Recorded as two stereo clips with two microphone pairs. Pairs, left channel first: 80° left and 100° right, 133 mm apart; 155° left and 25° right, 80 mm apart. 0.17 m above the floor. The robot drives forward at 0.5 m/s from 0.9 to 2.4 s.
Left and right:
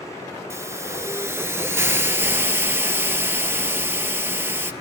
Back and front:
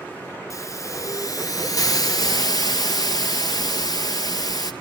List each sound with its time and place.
0.5 s a hiss: 165° right, 1.2 m; by 4.7 s 170° right, 1.8 m